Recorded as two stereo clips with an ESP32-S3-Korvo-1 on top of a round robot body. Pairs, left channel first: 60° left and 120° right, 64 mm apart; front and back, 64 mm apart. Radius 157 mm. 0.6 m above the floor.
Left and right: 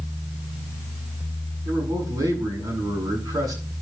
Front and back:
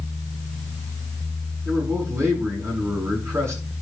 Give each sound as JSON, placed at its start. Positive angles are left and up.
{"t": 1.6, "sound": "a man speaking", "azimuth_deg": -130, "distance_m": 7.5}